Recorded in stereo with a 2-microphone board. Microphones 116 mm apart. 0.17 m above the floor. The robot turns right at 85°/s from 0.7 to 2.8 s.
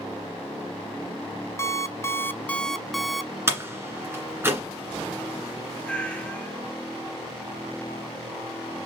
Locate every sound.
1.6 s an alarm clock: 25° left (ahead or behind), 0.5 m; by 3.3 s centre (ahead or behind), 0.5 m
3.5 s a door slam: 20° right (ahead or behind), 1.7 m
5.8 s a cat meowing: 10° left (ahead or behind), 1.1 m